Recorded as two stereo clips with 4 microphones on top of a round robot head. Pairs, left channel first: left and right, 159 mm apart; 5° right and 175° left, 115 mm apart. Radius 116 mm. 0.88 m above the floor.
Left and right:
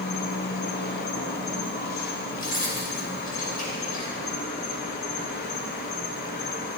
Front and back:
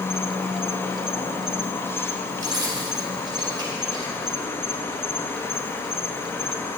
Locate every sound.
0.0 s an insect: 70° left, 0.8 m
2.4 s keys jangling: 125° left, 3 m